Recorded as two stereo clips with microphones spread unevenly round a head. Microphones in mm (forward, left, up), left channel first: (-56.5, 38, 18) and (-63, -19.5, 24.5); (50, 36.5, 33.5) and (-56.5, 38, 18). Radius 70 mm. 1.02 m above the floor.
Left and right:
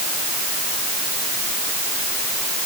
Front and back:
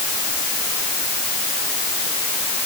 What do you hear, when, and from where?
Only background noise.